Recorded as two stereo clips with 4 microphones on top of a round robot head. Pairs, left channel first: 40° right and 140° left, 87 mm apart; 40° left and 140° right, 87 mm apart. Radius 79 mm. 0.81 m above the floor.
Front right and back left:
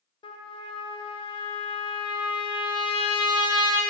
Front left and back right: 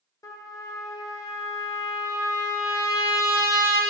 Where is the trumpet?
15° right, 1.5 m.